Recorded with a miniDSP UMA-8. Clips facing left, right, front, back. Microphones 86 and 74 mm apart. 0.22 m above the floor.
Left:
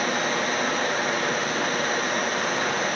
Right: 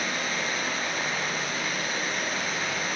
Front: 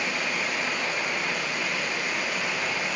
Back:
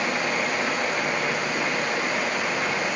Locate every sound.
0.0 s running water: 140° left, 9 m